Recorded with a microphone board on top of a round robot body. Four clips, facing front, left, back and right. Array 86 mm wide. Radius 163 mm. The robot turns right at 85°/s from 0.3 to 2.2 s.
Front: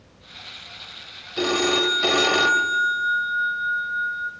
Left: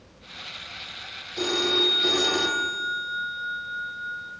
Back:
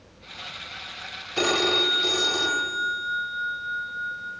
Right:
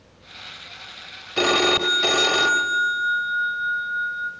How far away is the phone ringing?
About 2.0 m.